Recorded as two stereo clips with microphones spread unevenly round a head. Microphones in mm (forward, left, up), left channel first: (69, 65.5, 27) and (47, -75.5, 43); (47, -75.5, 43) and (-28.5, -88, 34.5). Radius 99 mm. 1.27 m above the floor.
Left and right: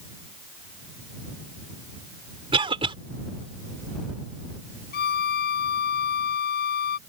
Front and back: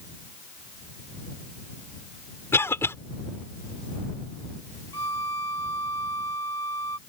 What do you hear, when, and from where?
2.5 s a cough: 45° right
4.9 s a violin: 80° left